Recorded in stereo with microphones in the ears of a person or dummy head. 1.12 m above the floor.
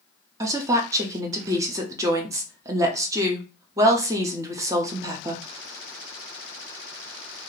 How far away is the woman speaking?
About 0.6 m.